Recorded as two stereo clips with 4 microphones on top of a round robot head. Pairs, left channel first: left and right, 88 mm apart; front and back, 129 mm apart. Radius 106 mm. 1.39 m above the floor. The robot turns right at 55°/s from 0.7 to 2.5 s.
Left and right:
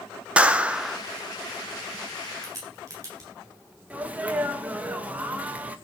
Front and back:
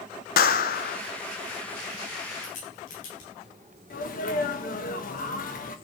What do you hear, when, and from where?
0.4 s a clap: 15° right, 0.9 m; by 1.0 s straight ahead, 0.9 m
2.4 s a crack: 35° right, 8 m
3.9 s a sneeze: 15° right, 2 m